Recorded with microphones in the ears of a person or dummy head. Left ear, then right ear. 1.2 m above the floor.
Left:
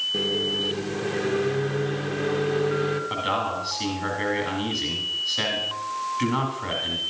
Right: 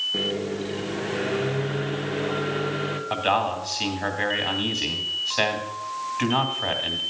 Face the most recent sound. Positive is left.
turn(degrees=-30)  # may be behind; listen again after turning